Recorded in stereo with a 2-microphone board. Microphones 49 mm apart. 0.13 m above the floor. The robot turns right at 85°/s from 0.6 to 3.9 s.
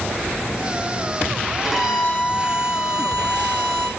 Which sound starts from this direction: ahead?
A violin, at 1.6 s.